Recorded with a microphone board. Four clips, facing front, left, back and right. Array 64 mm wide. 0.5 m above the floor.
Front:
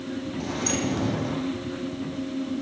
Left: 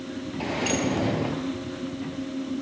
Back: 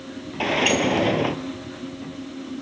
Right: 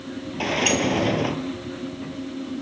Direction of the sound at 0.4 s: 160° right.